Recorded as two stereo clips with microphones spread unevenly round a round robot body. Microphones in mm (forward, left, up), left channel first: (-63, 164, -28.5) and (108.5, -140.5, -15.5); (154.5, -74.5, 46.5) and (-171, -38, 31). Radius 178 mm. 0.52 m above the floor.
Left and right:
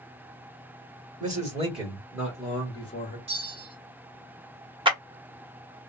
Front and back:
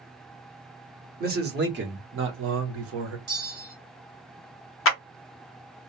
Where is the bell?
130° right, 2 m.